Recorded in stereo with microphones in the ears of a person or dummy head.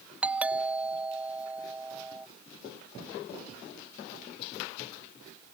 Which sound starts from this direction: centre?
A doorbell, at 0.2 s.